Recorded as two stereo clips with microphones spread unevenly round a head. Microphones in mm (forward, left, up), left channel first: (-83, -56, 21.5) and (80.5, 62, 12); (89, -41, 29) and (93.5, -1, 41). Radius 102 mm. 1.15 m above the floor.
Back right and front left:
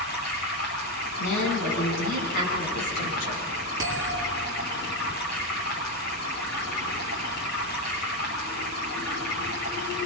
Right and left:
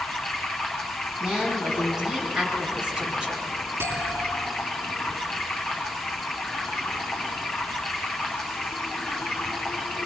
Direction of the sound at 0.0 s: 150° right.